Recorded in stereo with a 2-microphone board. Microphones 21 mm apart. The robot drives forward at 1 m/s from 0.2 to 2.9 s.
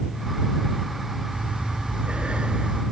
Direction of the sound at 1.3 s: 70° right (ahead or behind).